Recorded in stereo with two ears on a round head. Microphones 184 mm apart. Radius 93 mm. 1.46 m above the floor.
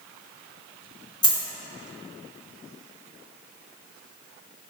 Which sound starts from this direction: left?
A dropped coin, at 1.2 s.